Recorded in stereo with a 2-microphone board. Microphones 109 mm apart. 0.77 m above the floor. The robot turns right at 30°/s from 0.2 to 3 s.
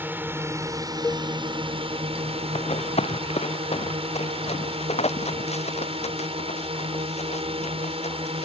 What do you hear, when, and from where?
0.0 s a drone: 160° right; by 8.4 s 75° right
1.0 s a cowbell: 15° left (ahead or behind); by 1.3 s 10° left (ahead or behind)
2.5 s running footsteps: 75° left (ahead or behind)